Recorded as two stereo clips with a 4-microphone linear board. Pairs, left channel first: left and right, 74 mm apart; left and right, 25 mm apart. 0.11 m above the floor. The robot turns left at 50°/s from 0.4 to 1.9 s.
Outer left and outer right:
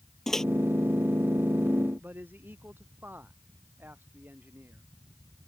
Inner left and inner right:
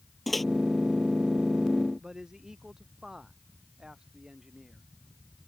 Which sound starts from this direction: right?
A man speaking, at 2.0 s.